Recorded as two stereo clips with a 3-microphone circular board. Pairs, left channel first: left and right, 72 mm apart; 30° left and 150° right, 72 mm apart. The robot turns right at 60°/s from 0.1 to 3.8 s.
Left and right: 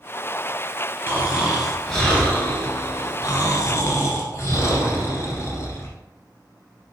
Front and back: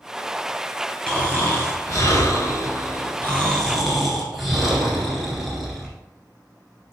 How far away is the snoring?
About 1.8 m.